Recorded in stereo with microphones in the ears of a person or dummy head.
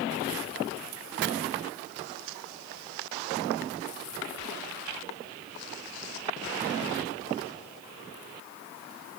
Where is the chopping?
50° right (ahead or behind), 0.6 m.